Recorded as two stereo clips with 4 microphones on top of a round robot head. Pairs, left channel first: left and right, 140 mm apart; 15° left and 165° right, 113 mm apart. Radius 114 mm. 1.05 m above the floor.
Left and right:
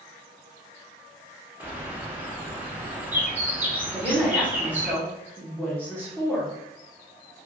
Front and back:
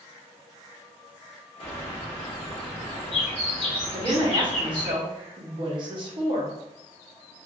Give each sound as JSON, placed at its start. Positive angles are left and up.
{"t": 1.6, "sound": "a bird", "azimuth_deg": -15, "distance_m": 0.8}
{"t": 3.9, "sound": "a woman speaking", "azimuth_deg": 165, "distance_m": 0.9}